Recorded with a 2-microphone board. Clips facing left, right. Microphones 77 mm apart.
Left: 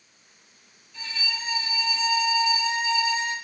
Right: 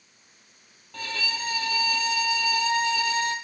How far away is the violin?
About 0.9 m.